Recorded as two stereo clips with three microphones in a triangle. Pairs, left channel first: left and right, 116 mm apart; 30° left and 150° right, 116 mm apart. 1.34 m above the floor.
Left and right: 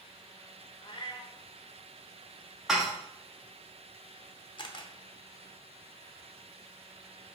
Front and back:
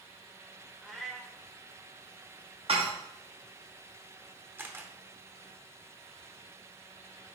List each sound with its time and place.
0.8 s a cat meowing: 125° left, 0.9 m
2.7 s dishes clattering: 175° right, 1.1 m
4.6 s a camera shutter: 140° left, 0.7 m